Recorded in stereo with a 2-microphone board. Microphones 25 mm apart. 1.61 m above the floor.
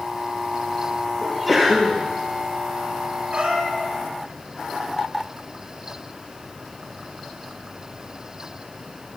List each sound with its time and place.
1.2 s a sneeze: 5° right (ahead or behind), 1.4 m
3.3 s a cat meowing: 65° right (ahead or behind), 3.5 m